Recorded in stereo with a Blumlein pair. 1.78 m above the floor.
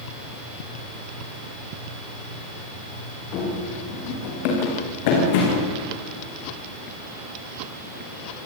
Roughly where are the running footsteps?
Ahead left.